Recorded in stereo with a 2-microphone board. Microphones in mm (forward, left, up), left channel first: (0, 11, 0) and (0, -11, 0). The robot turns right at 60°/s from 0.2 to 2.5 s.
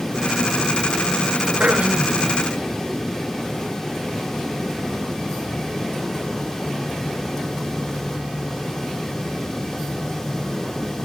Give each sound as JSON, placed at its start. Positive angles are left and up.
{"t": 1.6, "sound": "throat clearing", "azimuth_deg": -80, "distance_m": 0.6}